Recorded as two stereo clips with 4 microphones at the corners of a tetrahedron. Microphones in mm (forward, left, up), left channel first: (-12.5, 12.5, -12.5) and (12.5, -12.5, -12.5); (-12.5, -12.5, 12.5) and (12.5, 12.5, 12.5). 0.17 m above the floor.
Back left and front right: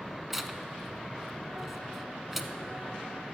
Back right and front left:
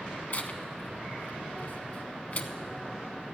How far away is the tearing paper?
About 0.6 m.